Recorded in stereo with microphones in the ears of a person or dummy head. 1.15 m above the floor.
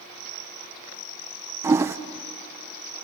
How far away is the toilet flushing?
About 0.5 m.